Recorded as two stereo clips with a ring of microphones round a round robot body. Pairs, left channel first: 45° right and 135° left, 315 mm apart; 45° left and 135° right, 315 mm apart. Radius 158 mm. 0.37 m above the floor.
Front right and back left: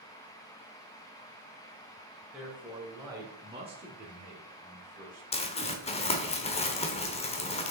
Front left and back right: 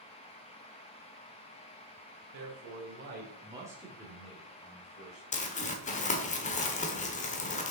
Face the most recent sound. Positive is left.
turn(degrees=5)